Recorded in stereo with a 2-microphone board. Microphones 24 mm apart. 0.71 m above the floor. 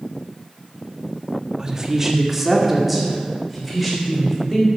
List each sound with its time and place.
1.6 s a woman speaking: 25° right (ahead or behind), 1.5 m; by 4.7 s 5° left (ahead or behind), 4.5 m